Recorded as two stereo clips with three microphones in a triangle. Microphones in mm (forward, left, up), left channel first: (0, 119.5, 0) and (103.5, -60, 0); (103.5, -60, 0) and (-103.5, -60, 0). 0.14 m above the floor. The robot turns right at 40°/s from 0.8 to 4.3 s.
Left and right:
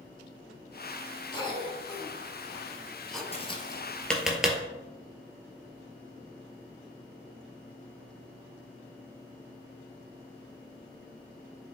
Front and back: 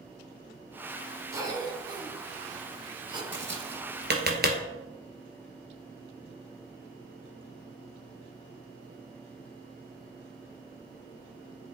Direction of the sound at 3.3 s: 175° left.